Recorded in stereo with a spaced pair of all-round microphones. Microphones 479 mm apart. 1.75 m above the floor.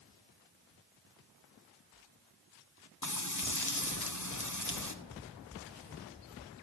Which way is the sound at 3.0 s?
40° left (ahead or behind).